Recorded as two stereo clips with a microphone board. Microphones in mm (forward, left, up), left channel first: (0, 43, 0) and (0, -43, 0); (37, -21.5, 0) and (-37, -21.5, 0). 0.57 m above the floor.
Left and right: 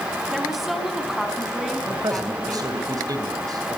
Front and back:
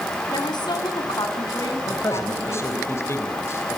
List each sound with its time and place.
0.3 s a woman speaking: straight ahead, 4 m
1.8 s a man speaking: 50° right, 3 m